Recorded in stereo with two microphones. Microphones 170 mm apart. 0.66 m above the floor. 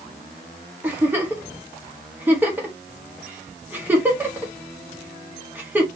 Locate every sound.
0.8 s a giggle: 10° right (ahead or behind), 1.0 m